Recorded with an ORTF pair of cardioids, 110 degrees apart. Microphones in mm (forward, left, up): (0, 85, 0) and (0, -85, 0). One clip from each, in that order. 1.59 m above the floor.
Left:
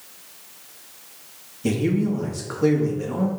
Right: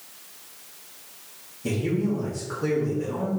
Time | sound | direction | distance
1.6 | a man speaking | 40° left | 2.5 m